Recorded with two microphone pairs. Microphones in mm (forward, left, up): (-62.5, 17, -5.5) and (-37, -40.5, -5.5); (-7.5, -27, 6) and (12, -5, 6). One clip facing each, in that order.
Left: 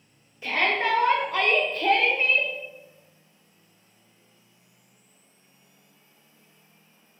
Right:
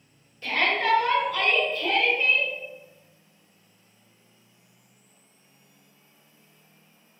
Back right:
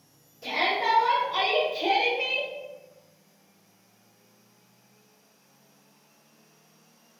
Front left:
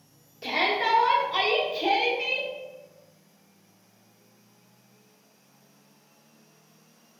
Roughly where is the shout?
Ahead left.